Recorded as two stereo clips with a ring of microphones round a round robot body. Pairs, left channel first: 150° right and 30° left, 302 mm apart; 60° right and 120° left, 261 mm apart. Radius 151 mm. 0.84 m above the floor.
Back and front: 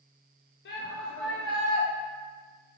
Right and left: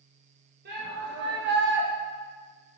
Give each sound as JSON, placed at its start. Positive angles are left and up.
{"t": 0.7, "sound": "a shout", "azimuth_deg": 165, "distance_m": 1.1}